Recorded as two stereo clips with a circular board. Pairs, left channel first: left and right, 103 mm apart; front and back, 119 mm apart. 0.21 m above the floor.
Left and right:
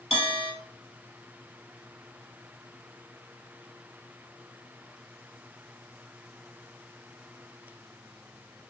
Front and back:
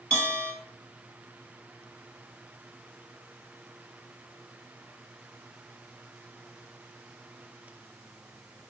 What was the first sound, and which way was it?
A bell, 80° left.